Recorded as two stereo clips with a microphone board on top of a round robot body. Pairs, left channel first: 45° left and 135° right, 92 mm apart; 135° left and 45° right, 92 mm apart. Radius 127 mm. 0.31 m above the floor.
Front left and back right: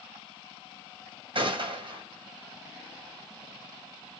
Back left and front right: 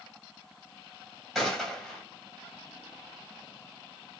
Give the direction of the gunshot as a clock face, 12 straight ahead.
5 o'clock.